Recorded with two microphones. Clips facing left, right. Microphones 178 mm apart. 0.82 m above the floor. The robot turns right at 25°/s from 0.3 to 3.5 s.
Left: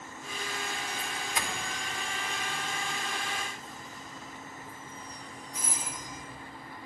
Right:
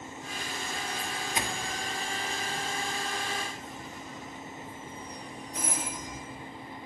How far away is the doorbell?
About 1.6 m.